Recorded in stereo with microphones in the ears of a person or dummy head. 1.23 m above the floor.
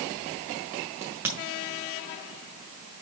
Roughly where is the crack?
Centre.